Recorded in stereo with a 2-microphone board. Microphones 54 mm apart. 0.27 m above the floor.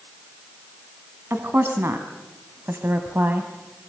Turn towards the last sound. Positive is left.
turn(degrees=-35)  # may be behind; listen again after turning